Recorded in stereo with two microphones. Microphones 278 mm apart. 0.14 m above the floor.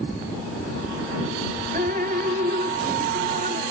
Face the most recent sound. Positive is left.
turn(degrees=-35)  # may be behind; listen again after turning